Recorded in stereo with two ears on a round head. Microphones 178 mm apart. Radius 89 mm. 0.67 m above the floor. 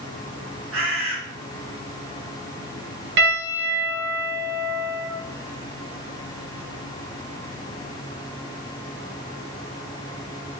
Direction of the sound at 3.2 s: 60° right (ahead or behind).